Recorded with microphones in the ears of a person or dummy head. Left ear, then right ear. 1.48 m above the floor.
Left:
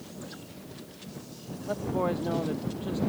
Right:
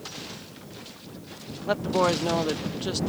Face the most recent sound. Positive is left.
turn(degrees=-65)  # may be behind; listen again after turning